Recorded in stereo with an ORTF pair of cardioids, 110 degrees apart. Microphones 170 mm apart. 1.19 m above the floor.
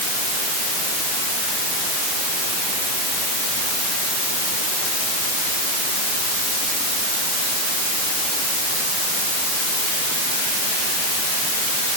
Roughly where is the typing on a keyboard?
No typing on a keyboard in this recording.